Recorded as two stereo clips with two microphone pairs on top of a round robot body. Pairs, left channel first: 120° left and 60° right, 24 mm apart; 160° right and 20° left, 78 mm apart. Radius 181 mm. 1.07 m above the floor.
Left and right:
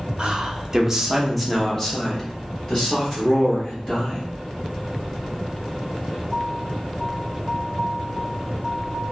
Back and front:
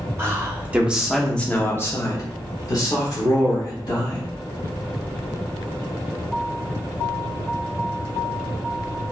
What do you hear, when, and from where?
0.2 s a man speaking: 30° right, 0.9 m; by 4.3 s 170° left, 1.9 m